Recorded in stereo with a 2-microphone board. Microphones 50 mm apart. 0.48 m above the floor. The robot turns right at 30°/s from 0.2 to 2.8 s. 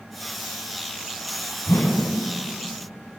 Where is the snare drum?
I don't hear a snare drum.